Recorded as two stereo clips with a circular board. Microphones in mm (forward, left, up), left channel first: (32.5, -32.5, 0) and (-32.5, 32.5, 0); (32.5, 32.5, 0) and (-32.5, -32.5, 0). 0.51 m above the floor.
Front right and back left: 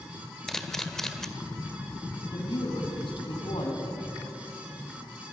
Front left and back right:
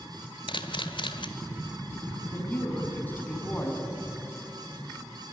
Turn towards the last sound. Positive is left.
turn(degrees=-25)